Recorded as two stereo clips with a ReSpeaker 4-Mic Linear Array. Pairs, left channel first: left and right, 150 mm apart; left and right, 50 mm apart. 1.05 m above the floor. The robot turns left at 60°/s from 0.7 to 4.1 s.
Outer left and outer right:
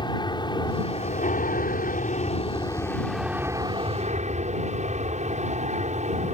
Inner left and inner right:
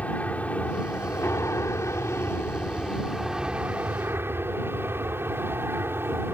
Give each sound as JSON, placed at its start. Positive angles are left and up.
{"t": 0.0, "sound": "an aircraft", "azimuth_deg": 145}